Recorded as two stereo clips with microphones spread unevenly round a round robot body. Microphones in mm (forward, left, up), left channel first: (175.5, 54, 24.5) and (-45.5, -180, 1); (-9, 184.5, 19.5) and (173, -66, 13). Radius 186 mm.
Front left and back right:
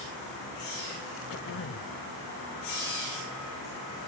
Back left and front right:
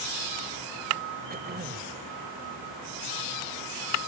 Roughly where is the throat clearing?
Ahead.